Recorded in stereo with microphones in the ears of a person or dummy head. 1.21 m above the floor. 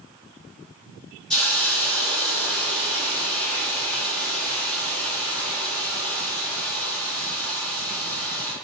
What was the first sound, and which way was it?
A hiss, 5° left (ahead or behind).